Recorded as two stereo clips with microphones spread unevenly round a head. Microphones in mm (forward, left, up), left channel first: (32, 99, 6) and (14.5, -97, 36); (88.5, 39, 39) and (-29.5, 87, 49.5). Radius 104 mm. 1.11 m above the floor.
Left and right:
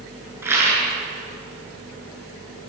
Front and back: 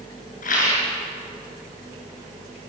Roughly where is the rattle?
Ahead.